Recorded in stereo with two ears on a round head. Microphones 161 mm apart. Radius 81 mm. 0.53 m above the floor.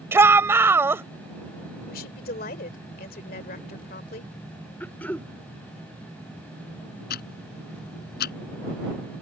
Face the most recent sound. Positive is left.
turn(degrees=60)  # may be behind; listen again after turning